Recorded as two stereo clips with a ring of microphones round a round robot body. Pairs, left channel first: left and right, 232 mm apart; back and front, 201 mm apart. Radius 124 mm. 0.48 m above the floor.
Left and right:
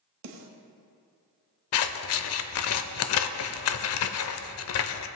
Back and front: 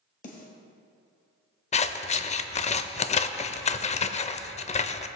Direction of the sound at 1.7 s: 120° left.